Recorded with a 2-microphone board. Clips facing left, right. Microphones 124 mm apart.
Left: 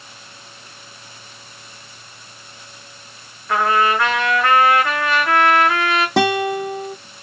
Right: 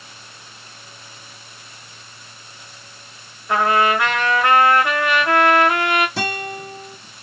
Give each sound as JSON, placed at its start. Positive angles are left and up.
{"t": 3.5, "sound": "a trumpet", "side_deg": -20, "distance_m": 1.2}
{"t": 6.2, "sound": "a guitar", "side_deg": 80, "distance_m": 0.6}